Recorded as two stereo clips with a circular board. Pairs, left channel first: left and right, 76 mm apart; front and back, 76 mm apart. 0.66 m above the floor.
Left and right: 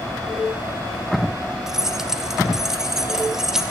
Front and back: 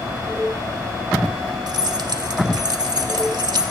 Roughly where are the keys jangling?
Behind.